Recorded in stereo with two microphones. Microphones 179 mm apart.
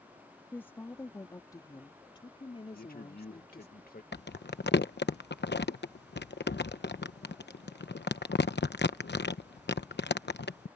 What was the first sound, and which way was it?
A woman speaking, 10° left (ahead or behind).